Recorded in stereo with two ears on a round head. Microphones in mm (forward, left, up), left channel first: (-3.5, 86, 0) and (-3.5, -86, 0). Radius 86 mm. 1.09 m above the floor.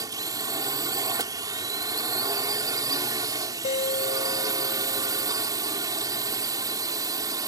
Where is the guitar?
35° left (ahead or behind).